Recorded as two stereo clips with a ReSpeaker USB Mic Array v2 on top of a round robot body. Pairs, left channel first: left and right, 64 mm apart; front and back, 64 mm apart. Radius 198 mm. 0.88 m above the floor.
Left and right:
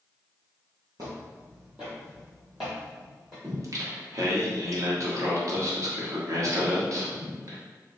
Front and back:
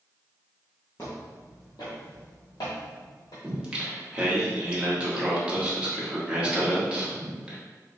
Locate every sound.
1.0 s footsteps: 55° right, 1.1 m; by 3.3 s 5° left, 2.5 m
3.4 s singing: 110° right, 1.4 m